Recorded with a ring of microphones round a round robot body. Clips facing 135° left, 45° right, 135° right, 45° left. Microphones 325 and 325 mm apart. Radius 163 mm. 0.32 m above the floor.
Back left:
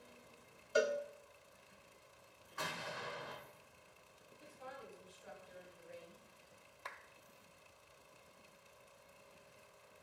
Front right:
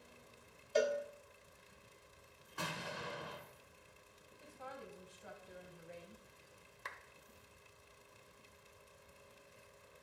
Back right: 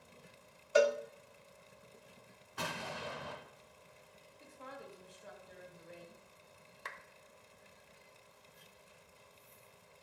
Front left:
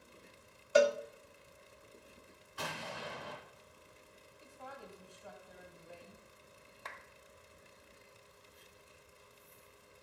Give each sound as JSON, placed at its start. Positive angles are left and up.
{"t": 0.8, "sound": "a cowbell", "azimuth_deg": 55, "distance_m": 0.6}
{"t": 2.6, "sound": "an explosion", "azimuth_deg": -95, "distance_m": 2.5}
{"t": 4.4, "sound": "a woman speaking", "azimuth_deg": -75, "distance_m": 1.7}
{"t": 6.8, "sound": "a clap", "azimuth_deg": -90, "distance_m": 0.8}